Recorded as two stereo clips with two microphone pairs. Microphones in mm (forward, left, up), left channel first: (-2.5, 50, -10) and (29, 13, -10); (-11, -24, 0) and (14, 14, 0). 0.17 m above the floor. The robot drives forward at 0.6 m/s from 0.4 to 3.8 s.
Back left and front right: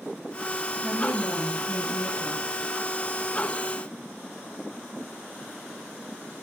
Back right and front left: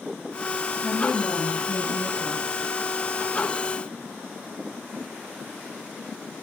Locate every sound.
0.8 s a woman speaking: 85° right, 3.5 m; by 2.6 s 105° right, 3.5 m